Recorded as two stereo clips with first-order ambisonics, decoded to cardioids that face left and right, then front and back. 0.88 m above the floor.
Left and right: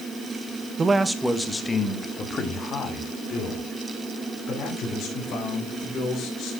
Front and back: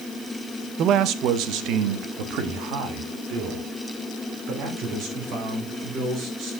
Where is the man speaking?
160° right, 0.8 m; by 6.5 s 140° left, 4.5 m.